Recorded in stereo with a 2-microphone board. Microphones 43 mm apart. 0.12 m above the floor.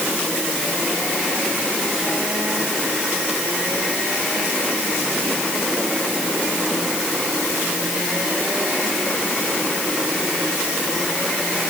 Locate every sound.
Only background noise.